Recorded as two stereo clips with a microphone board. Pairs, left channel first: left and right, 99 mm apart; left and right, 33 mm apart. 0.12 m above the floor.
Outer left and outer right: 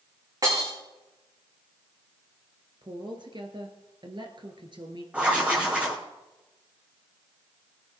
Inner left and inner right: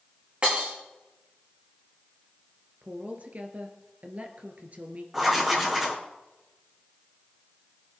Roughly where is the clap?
I don't hear a clap.